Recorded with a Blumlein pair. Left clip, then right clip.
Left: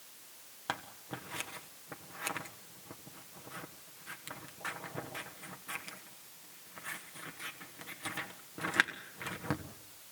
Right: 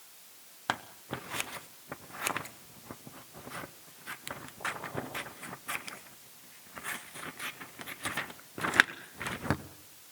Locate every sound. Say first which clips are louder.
0.7 s scissors: right 5 dB; 20° right, 1.0 m